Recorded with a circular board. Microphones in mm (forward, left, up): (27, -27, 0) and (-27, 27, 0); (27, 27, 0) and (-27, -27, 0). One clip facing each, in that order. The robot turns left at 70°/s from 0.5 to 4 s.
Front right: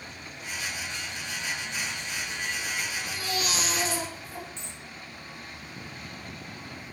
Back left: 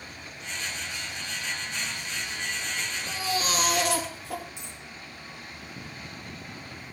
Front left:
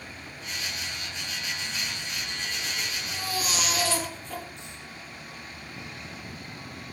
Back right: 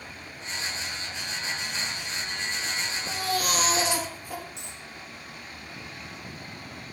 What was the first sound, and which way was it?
A baby crying, 150° right.